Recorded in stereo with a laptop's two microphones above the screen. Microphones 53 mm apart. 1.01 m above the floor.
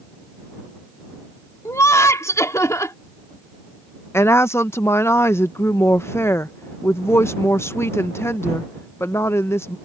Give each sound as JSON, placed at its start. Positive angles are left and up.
{"t": 1.6, "sound": "laughter", "side_deg": 75}
{"t": 4.1, "sound": "a woman speaking", "side_deg": 55}